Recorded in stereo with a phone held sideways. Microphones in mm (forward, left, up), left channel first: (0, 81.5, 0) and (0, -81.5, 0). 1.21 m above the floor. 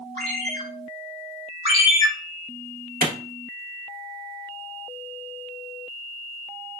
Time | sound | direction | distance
0.2 | a ringtone | 70° right (ahead or behind) | 2 m
1.6 | a ringtone | 45° right (ahead or behind) | 1.6 m
3.0 | a clap | 65° right (ahead or behind) | 0.9 m